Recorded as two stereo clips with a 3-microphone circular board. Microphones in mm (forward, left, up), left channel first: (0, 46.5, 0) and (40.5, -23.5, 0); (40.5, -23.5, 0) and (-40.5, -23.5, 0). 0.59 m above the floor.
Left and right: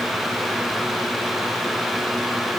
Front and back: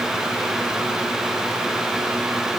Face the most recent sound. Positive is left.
No sound to turn to.